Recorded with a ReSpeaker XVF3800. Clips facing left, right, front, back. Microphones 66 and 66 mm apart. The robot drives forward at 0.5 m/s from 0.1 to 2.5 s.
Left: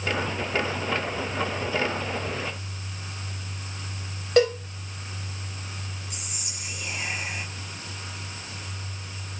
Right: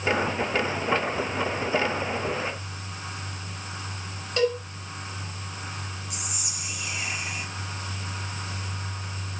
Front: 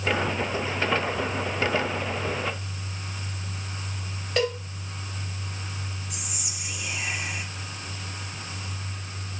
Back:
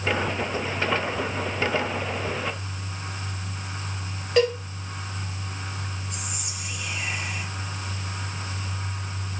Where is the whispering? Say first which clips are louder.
Right 3 dB, back 3 dB; 75° left, 1.2 m.